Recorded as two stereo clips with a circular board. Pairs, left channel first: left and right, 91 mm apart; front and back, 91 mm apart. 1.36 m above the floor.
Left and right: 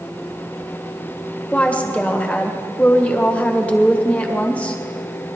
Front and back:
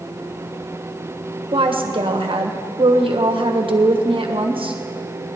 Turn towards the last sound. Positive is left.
turn(degrees=165)